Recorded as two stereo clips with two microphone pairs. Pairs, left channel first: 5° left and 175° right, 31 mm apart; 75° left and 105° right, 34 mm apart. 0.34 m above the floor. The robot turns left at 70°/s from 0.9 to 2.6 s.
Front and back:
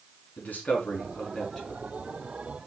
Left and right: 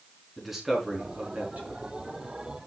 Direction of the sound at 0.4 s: 25° right.